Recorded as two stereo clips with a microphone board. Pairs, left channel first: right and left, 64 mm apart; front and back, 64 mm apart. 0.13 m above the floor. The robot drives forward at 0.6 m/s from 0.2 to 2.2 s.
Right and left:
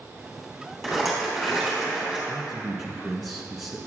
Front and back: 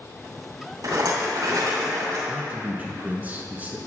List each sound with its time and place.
0.8 s a rattle: straight behind, 3 m
2.3 s a man speaking: 175° left, 1.1 m